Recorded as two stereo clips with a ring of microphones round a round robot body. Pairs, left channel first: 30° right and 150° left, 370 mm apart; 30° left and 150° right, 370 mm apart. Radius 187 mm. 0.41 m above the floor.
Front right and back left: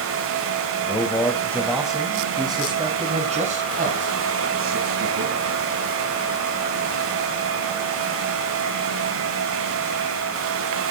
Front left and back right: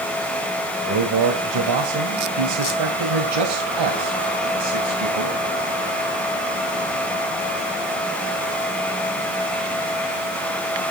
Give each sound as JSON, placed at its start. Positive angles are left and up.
{"t": 0.8, "sound": "a man speaking", "azimuth_deg": -105, "distance_m": 2.5}